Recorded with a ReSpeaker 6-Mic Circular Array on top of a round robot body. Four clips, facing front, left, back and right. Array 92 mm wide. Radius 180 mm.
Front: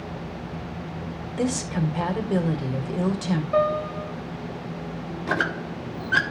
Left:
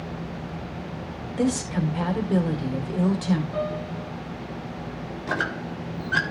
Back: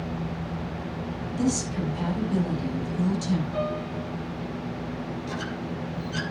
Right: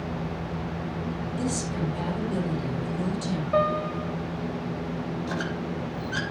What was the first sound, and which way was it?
A woman speaking, 40° left.